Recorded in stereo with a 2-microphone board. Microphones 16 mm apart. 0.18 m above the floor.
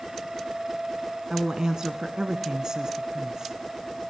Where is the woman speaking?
40° right (ahead or behind), 1.5 m.